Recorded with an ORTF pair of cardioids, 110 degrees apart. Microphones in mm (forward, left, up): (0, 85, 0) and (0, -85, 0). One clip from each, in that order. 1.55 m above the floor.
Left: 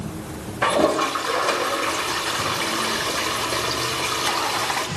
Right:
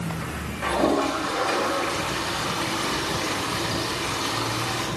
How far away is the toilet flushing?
About 4.5 m.